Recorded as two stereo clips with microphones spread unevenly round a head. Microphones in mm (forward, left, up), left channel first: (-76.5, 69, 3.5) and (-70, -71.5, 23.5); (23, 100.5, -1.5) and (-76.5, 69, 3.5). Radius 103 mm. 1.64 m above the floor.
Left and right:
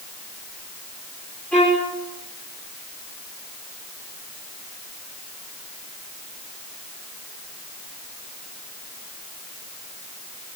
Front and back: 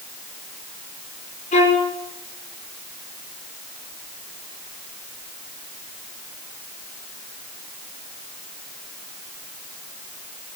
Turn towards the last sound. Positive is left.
turn(degrees=5)